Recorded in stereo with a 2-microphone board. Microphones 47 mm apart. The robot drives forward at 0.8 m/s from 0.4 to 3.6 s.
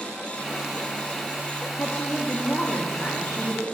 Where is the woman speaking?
65° left (ahead or behind), 1.7 m; by 3.6 s 45° left (ahead or behind), 2 m.